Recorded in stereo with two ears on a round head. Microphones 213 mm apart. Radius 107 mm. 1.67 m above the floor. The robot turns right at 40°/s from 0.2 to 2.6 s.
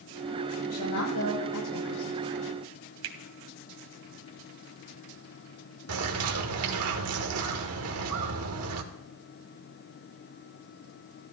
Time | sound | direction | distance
0.6 | a woman speaking | 35° left | 6.5 m
3.0 | a finger snap | 60° right (ahead or behind) | 1.6 m
5.9 | a bird | 65° right (ahead or behind) | 1.3 m